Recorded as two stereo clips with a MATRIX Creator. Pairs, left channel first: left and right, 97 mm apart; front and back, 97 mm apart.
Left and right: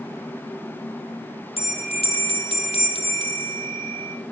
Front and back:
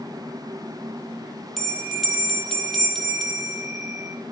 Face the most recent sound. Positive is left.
turn(degrees=90)